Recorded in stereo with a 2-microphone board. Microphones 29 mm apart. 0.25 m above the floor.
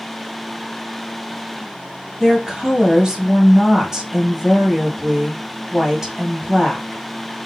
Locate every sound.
2.2 s a woman speaking: 20° right (ahead or behind), 1.4 m